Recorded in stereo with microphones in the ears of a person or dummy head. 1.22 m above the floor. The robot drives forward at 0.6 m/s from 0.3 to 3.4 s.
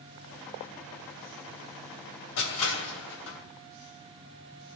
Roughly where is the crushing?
Left.